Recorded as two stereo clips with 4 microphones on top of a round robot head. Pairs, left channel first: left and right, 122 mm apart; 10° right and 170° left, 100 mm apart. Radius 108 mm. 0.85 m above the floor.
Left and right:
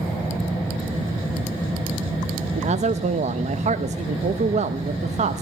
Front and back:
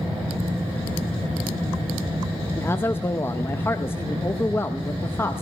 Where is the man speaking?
80° right, 0.8 m.